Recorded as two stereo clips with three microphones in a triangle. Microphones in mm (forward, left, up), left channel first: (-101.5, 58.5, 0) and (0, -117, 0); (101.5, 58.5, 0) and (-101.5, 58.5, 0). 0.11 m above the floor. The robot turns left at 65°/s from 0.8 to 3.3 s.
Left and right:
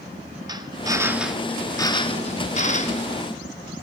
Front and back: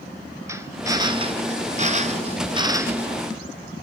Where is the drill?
115° right, 1.8 m; by 3.1 s 100° left, 1.8 m.